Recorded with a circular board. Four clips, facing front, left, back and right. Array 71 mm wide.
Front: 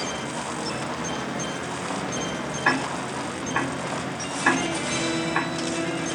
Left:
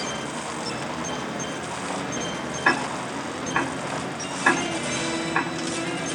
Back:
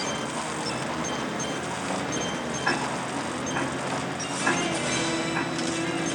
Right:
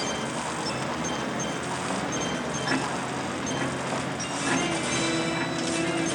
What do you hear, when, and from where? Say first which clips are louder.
2.6 s ticking: left 7 dB, front 4 dB; 60° left, 6 m